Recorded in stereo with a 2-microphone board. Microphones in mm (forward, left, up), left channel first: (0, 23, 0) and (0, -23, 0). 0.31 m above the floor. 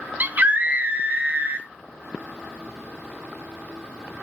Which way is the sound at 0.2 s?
35° right (ahead or behind).